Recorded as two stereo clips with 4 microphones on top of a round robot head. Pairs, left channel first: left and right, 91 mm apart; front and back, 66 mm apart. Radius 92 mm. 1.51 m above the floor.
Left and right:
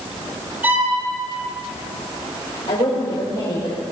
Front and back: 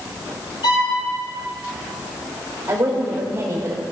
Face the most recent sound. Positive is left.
turn(degrees=130)